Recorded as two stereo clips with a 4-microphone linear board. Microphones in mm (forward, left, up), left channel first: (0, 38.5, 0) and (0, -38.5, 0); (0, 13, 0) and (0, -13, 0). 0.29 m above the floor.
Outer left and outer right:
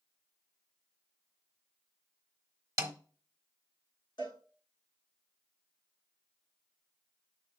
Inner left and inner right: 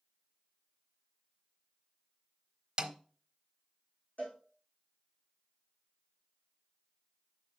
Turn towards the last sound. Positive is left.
turn(degrees=80)